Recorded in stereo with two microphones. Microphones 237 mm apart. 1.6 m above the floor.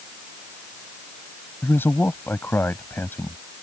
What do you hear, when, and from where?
1.6 s a man speaking: 10° left (ahead or behind)